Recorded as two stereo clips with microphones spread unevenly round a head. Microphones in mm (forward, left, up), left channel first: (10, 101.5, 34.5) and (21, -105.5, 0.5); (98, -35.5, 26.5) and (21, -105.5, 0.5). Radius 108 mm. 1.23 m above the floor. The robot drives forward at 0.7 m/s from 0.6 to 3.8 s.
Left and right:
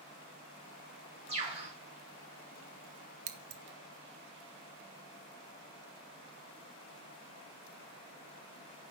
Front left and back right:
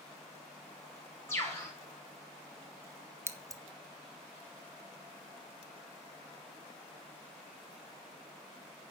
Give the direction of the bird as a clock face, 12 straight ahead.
1 o'clock.